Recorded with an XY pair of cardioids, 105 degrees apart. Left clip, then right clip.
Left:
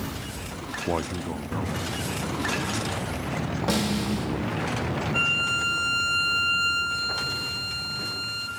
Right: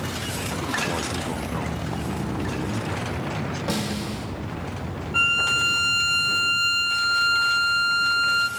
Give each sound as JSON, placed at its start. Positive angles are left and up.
{"t": 0.9, "sound": "a man speaking", "azimuth_deg": 35, "distance_m": 0.5}
{"t": 3.7, "sound": "a snare drum", "azimuth_deg": 10, "distance_m": 1.5}
{"t": 5.1, "sound": "a violin", "azimuth_deg": -35, "distance_m": 0.8}